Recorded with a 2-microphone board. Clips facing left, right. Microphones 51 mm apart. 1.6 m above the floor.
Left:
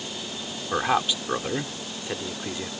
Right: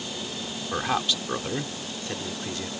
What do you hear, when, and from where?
0.7 s a man speaking: 15° left (ahead or behind)